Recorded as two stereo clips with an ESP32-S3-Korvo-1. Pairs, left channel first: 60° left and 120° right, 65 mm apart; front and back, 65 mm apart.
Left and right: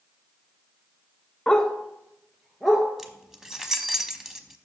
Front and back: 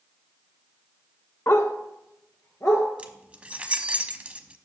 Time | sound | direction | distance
1.5 | a dog barking | 10° right | 0.7 m
3.0 | keys jangling | 170° left | 0.7 m